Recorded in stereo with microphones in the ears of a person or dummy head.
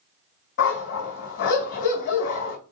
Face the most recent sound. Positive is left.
turn(degrees=60)  # may be behind; listen again after turning